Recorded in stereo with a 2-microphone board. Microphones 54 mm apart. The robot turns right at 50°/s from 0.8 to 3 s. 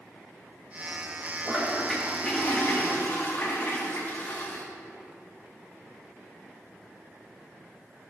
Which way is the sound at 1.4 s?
25° right.